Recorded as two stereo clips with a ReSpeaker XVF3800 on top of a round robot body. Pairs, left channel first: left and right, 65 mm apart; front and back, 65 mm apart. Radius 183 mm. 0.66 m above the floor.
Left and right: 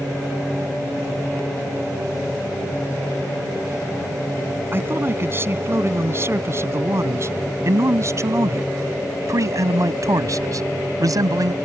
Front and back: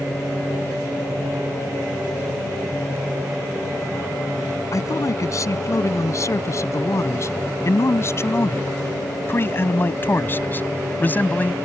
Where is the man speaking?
35° right; by 11.6 s 65° right.